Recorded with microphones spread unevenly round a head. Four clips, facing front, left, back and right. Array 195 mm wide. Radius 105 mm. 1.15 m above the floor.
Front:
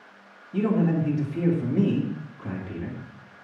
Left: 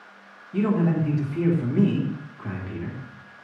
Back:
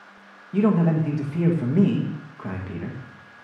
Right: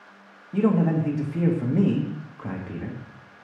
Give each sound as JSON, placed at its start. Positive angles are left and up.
{"t": 0.5, "sound": "a man speaking", "azimuth_deg": -145, "distance_m": 1.8}